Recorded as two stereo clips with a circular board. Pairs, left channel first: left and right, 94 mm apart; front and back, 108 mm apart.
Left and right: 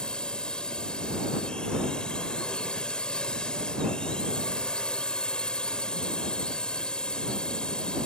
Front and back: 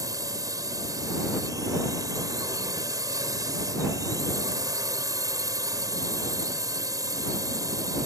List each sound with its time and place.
0.0 s a drone: 165° left